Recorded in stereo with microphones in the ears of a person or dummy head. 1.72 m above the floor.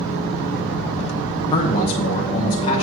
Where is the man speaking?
35° left (ahead or behind), 0.9 m.